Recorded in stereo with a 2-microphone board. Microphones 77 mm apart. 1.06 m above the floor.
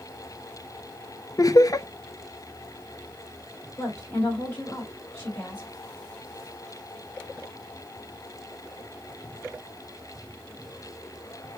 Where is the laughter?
50° left (ahead or behind), 0.5 m.